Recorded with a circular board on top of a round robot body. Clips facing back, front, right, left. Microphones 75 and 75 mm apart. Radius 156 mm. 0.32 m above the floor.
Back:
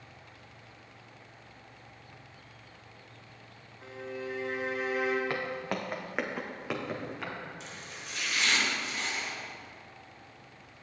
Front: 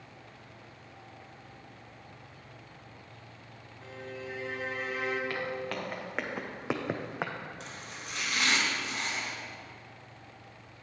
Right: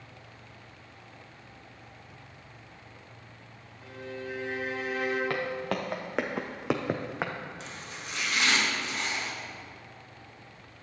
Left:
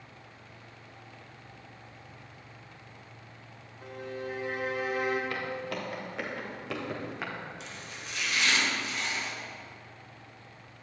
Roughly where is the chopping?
Ahead right.